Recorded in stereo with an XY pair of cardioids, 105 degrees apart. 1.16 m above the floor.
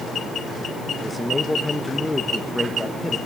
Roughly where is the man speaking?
Ahead.